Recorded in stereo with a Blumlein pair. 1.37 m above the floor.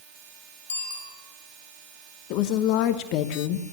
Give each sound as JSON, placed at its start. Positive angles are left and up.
{"t": 0.7, "sound": "a bicycle bell", "azimuth_deg": 65, "distance_m": 5.5}
{"t": 2.3, "sound": "a woman speaking", "azimuth_deg": 40, "distance_m": 0.9}